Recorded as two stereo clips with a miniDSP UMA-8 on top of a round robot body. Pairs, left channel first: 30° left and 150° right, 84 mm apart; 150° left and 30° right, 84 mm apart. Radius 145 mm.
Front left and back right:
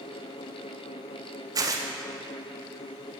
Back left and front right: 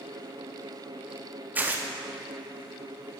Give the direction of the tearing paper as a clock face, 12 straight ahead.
3 o'clock.